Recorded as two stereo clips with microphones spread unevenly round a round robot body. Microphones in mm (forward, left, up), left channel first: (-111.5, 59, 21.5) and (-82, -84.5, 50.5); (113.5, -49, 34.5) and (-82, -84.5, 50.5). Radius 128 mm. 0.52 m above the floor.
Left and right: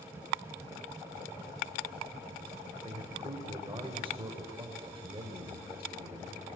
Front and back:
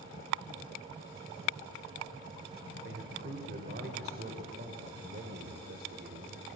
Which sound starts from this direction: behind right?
A man speaking, at 2.8 s.